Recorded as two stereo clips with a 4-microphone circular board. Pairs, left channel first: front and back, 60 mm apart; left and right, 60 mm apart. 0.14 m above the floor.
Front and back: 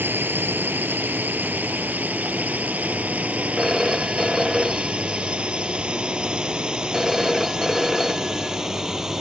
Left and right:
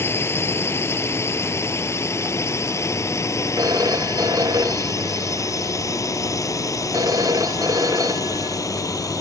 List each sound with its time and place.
0.0 s a drone: 130° left; by 9.2 s 100° left
3.6 s a phone ringing: 90° right